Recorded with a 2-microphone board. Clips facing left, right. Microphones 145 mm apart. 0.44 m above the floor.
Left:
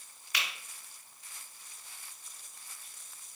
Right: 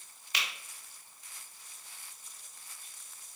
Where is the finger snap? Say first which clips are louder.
Even; 25° right (ahead or behind), 1.2 m.